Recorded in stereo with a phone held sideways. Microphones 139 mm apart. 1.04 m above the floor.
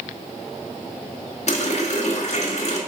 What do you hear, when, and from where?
1.5 s a running tap: 55° left (ahead or behind), 1.0 m